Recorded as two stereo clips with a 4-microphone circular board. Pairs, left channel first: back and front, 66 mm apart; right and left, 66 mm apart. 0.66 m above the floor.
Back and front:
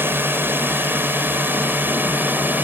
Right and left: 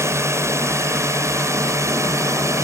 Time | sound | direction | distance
0.0 | a drone | 50° left | ?